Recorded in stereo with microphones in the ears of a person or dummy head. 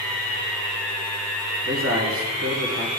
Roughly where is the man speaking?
Right.